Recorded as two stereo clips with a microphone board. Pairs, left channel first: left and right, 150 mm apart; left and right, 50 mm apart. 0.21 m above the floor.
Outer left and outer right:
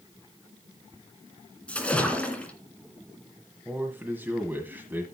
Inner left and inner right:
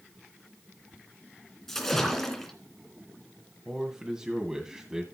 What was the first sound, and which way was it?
A splash, 10° left (ahead or behind).